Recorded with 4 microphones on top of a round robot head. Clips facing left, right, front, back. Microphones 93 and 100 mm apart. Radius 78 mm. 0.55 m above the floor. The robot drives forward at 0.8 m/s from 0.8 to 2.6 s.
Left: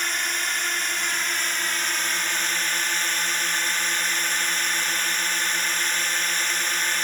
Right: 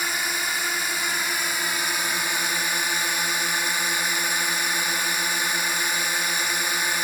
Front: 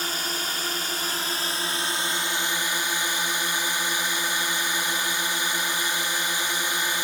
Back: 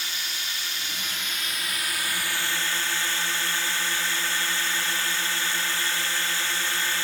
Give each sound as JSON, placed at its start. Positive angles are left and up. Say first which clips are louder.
{"t": 0.0, "sound": "a drone", "louder": "right 1 dB, front 6 dB", "azimuth_deg": -10}